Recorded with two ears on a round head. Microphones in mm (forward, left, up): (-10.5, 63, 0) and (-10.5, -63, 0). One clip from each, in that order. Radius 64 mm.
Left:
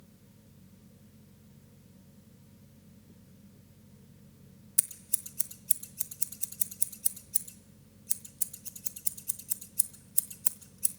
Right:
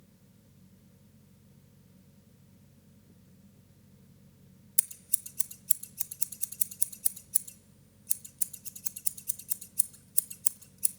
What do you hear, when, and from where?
4.8 s scissors: 10° right (ahead or behind), 0.7 m